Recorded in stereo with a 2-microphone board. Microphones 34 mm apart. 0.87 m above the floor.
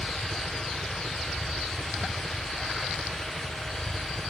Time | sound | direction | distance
0.0 | a helicopter | 65° right (ahead or behind) | ?